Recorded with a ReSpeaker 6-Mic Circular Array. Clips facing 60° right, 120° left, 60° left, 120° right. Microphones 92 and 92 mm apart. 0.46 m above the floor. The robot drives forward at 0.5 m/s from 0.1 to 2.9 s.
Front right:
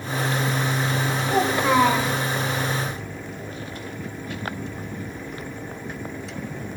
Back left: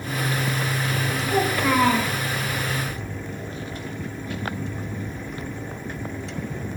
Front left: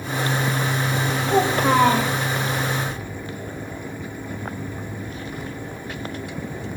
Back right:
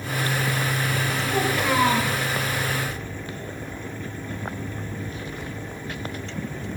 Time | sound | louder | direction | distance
1.3 | a child speaking | front right 2 dB, front left 6 dB | 10° left | 1.2 m